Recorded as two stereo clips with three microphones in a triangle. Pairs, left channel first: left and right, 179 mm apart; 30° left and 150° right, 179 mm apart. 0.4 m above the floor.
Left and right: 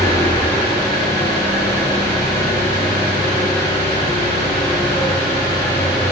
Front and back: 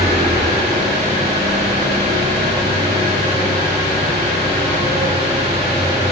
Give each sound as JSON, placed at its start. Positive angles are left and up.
{"t": 0.0, "sound": "an engine running", "azimuth_deg": 160, "distance_m": 6.5}